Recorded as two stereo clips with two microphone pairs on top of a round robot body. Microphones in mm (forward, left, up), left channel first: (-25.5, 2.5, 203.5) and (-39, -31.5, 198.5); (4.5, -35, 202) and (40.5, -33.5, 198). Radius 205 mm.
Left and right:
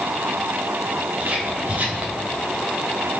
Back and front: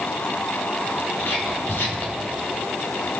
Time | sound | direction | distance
1.2 | whispering | 155° right | 5.5 m